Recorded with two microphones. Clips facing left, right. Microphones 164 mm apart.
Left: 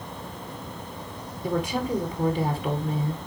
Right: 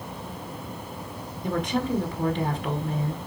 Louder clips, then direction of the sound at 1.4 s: Even; 10° left (ahead or behind).